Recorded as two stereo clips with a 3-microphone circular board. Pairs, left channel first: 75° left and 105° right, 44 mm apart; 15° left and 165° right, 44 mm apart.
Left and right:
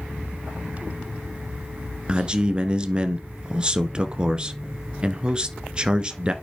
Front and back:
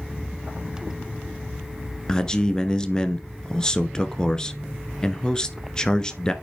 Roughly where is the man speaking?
Ahead right.